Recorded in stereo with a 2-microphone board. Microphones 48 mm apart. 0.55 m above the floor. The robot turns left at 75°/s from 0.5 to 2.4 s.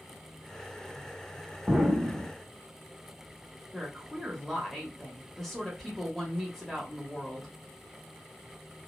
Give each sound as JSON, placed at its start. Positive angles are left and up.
{"t": 1.7, "sound": "an explosion", "azimuth_deg": -20, "distance_m": 0.6}
{"t": 3.7, "sound": "a woman speaking", "side_deg": 5, "distance_m": 0.9}